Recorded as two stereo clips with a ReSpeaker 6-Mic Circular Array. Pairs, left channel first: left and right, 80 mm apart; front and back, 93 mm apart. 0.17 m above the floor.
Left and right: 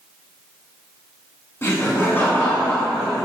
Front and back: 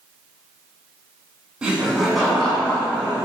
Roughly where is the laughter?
Left.